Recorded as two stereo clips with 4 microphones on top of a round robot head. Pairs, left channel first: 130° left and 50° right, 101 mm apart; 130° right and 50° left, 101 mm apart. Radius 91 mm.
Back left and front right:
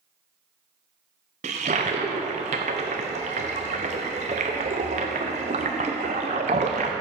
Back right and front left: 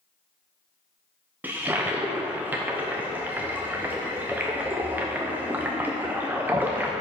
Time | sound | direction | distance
1.4 | a toilet flushing | 25° right | 0.6 m